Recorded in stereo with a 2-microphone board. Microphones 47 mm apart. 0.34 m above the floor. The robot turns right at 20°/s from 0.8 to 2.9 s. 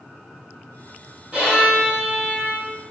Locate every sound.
1.3 s a violin: 25° right (ahead or behind), 1.6 m; by 2.7 s 40° right (ahead or behind), 1.6 m